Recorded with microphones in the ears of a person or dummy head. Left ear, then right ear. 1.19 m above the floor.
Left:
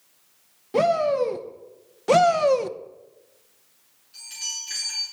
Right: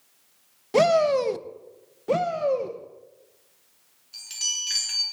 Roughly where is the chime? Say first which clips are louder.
Right 4 dB; right.